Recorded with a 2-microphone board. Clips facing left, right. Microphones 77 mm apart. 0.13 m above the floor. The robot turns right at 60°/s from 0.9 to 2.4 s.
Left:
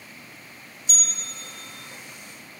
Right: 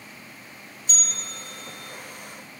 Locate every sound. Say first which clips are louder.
0.9 s a bell: right 1 dB; 110° right, 3.5 m; by 1.9 s 50° right, 3.5 m